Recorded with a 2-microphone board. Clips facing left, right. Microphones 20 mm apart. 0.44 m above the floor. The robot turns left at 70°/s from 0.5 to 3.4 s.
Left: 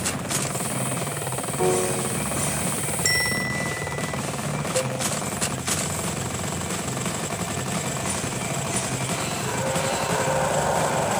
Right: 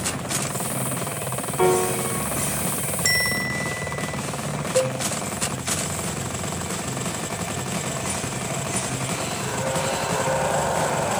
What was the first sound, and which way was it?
A piano, 65° right.